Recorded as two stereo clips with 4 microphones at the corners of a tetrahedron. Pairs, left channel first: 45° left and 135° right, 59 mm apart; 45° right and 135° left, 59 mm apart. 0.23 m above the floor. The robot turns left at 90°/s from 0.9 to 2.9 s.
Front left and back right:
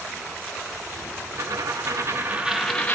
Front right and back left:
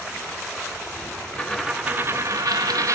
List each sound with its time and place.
1.4 s a dropped coin: 115° right, 0.9 m; by 3.0 s 110° left, 0.9 m